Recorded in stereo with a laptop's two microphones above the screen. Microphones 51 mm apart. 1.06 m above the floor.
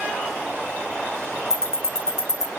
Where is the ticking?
65° left (ahead or behind), 1.8 m.